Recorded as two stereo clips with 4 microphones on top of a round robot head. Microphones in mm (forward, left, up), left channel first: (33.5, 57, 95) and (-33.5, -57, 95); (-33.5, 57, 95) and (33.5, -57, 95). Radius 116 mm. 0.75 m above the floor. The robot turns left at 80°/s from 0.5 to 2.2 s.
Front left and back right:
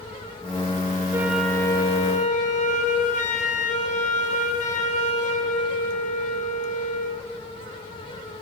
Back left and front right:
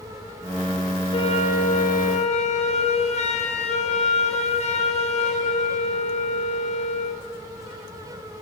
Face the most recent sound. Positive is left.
turn(degrees=85)